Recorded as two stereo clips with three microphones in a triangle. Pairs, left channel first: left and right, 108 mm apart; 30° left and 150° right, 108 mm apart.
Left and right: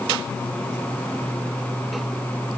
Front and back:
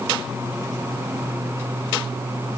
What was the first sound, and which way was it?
Only background noise.